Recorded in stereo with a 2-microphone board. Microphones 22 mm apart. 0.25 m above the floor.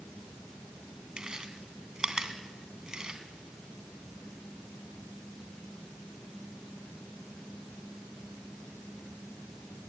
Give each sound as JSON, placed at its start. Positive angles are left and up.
{"t": 1.2, "sound": "chewing", "side_deg": -30, "distance_m": 2.5}